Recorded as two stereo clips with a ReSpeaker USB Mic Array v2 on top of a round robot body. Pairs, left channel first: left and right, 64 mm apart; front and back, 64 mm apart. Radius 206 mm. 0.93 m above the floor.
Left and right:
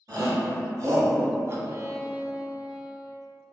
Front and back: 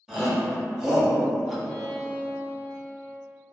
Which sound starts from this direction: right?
A shout, at 0.1 s.